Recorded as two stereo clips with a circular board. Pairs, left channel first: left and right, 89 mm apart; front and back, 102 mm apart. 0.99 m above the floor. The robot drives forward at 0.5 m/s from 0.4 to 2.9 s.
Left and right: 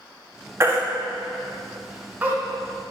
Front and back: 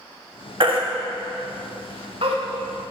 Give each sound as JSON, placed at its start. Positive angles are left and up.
{"t": 0.6, "sound": "a baby crying", "azimuth_deg": -150, "distance_m": 1.4}